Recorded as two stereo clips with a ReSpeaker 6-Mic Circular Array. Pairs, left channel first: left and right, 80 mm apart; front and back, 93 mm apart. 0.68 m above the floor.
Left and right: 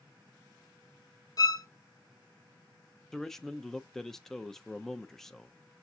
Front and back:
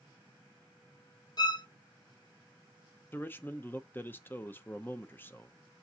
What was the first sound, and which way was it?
A violin, 45° left.